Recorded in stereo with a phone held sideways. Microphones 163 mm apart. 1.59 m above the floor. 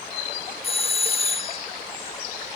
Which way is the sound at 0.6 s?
35° left (ahead or behind).